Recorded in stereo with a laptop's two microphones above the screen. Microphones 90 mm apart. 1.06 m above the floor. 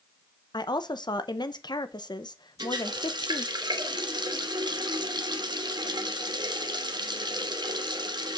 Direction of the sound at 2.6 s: 55° right (ahead or behind).